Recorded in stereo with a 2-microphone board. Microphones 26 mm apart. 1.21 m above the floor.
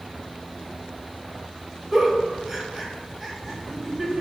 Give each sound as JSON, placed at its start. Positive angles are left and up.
{"t": 1.9, "sound": "a giggle", "side_deg": 0, "distance_m": 1.0}